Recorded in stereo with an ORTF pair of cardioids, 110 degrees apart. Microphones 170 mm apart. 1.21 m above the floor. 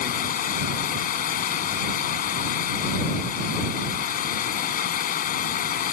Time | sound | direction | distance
0.0 | running water | 60° left | ?